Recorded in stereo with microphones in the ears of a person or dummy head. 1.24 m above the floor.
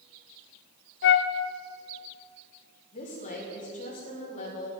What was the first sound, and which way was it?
A flute, 60° left (ahead or behind).